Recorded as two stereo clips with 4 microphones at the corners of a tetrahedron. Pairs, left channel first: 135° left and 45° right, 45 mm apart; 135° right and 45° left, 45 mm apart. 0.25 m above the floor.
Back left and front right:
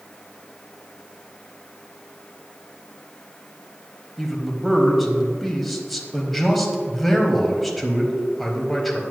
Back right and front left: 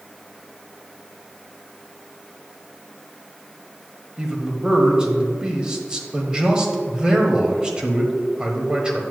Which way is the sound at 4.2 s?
50° left.